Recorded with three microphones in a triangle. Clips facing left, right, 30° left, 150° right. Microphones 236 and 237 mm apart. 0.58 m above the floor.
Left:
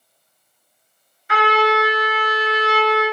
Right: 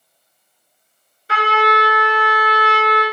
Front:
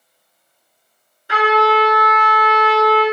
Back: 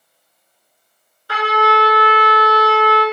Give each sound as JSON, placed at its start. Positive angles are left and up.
{"t": 1.3, "sound": "a trumpet", "azimuth_deg": -40, "distance_m": 1.1}